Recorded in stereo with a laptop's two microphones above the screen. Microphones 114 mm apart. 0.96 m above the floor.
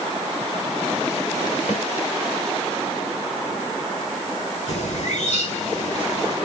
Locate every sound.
1.7 s a snare drum: 70° left (ahead or behind), 4.5 m
4.7 s a bird: 70° left (ahead or behind), 7 m